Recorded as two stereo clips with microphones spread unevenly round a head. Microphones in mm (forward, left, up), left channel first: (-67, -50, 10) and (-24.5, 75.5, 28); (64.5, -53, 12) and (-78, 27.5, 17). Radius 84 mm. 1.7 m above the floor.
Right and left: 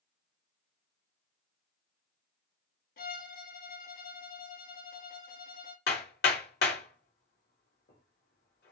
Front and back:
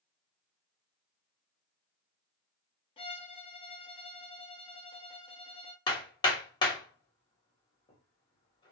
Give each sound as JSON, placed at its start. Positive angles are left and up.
{"t": 3.0, "sound": "a violin", "azimuth_deg": -85, "distance_m": 0.6}
{"t": 5.9, "sound": "hammering", "azimuth_deg": -95, "distance_m": 1.2}